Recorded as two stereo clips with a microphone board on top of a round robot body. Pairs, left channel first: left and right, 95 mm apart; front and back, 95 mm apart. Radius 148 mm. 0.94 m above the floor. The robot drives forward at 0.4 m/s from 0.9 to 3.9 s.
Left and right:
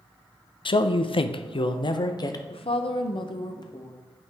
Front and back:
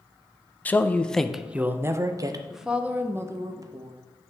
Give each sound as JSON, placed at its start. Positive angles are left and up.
{"t": 0.7, "sound": "a man speaking", "azimuth_deg": 75, "distance_m": 0.6}
{"t": 2.5, "sound": "a woman speaking", "azimuth_deg": 90, "distance_m": 0.6}